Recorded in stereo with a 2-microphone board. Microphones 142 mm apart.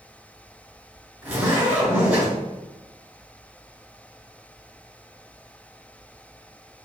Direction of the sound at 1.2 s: 15° right (ahead or behind).